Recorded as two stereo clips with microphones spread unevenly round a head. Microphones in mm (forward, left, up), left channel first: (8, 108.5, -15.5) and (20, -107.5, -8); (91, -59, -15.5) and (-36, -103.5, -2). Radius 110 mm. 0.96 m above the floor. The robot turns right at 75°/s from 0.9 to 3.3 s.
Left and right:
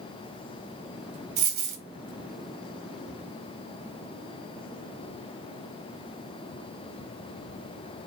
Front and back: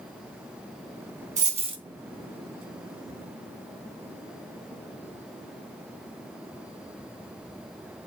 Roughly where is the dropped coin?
Behind right.